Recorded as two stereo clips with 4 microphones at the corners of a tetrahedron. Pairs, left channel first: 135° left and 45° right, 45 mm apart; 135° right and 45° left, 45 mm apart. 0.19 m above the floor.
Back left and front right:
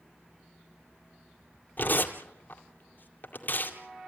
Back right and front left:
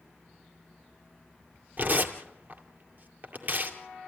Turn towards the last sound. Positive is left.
turn(degrees=95)